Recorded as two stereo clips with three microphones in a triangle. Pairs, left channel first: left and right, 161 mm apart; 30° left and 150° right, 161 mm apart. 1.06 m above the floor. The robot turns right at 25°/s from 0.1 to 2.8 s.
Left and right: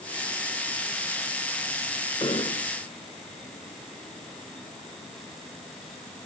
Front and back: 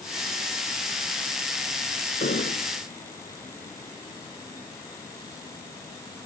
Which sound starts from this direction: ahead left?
An explosion, at 2.2 s.